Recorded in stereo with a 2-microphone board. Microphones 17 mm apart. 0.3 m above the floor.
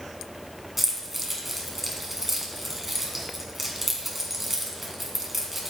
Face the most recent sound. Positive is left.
turn(degrees=-10)  # may be behind; listen again after turning